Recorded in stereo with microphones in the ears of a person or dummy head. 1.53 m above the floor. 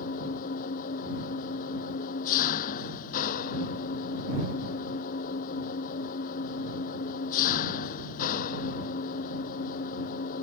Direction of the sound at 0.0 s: 50° left (ahead or behind).